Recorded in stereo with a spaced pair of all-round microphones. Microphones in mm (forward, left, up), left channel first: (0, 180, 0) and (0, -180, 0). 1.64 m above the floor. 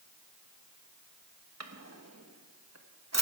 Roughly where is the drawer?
Right.